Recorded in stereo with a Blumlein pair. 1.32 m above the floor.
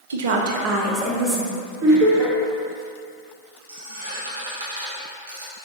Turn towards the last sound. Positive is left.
turn(degrees=-60)